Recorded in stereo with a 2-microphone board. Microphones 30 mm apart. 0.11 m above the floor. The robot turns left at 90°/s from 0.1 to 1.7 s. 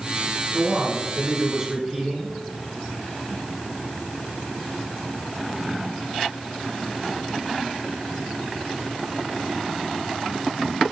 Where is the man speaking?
15° right (ahead or behind), 1.5 m; by 2.3 s 10° right (ahead or behind), 1.5 m.